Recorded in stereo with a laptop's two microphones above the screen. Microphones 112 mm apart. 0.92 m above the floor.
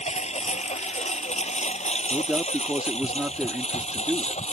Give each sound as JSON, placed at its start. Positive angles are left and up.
{"t": 0.0, "sound": "a lawn mower", "side_deg": 80}
{"t": 2.1, "sound": "a man speaking", "side_deg": -10}